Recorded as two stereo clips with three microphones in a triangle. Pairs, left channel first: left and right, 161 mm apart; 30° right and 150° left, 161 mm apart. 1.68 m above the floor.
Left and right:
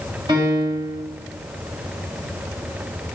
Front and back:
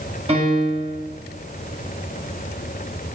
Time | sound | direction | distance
0.3 | a piano | 155° right | 9 m